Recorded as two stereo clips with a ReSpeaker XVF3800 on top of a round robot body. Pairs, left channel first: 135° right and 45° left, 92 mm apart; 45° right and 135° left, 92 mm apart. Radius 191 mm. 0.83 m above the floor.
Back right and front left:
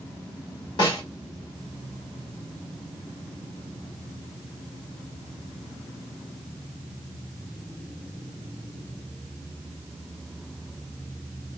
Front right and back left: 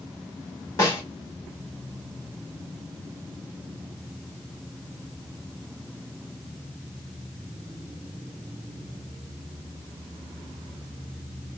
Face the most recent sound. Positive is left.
turn(degrees=-105)